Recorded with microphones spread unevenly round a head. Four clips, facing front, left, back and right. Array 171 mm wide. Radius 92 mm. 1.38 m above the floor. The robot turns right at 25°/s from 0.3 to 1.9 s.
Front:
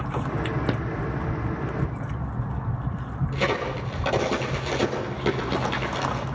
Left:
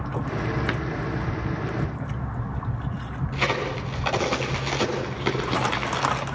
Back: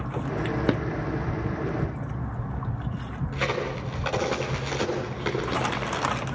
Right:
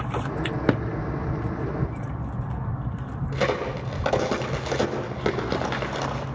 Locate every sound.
0.7 s a drawer: 85° right, 0.9 m; by 0.8 s 80° right, 0.9 m
3.3 s a crack: 80° right, 5.5 m